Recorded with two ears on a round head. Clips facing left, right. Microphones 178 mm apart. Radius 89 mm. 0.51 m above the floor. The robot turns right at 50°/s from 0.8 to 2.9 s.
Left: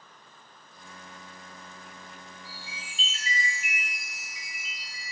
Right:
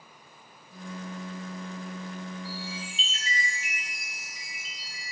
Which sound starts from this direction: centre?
A chime, at 2.5 s.